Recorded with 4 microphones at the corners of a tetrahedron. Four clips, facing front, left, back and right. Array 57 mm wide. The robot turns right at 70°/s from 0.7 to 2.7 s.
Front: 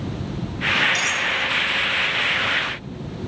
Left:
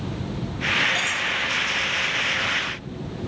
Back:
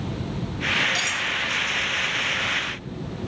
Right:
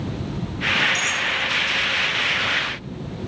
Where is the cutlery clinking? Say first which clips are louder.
Right 2 dB, front 3 dB; 90° left, 0.6 m; by 1.3 s 110° left, 0.6 m.